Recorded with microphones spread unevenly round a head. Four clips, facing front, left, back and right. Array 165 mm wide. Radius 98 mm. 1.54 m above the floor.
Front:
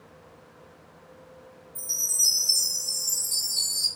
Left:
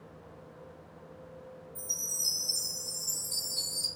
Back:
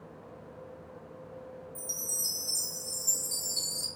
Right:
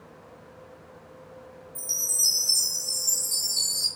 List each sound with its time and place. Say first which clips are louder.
1.8 s a chime: right 4 dB, back 1 dB; 165° right, 0.5 m